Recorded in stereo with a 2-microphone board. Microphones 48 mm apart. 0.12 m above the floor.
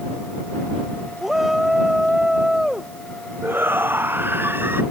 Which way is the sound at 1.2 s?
5° right (ahead or behind).